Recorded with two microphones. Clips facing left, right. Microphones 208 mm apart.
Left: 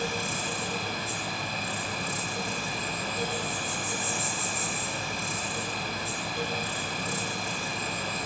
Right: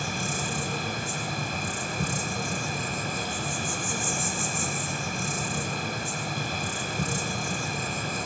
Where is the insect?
45° right (ahead or behind), 7.5 m.